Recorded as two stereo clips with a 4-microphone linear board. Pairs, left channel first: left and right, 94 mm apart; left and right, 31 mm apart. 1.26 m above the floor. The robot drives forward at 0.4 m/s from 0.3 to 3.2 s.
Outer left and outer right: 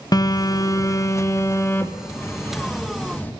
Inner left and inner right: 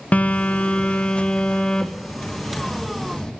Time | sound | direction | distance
0.1 | a phone buzzing | 45° left (ahead or behind) | 0.9 m